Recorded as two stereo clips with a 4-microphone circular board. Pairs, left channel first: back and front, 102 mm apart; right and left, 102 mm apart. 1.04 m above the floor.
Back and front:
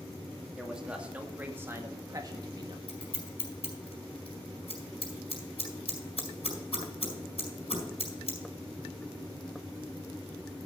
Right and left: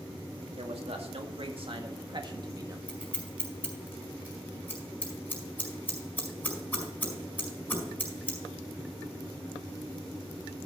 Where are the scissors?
160° right, 4.5 m.